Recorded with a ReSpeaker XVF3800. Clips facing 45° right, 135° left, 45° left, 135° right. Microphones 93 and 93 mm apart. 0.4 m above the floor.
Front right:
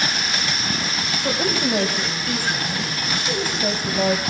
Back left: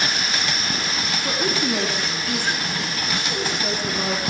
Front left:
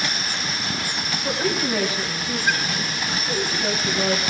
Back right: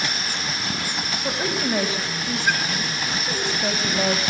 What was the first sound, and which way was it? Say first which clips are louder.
A woman speaking: front right 2 dB, front left 2 dB; 75° right.